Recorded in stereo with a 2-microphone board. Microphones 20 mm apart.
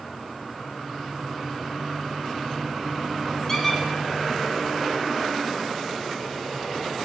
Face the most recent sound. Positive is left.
turn(degrees=10)  # may be behind; listen again after turning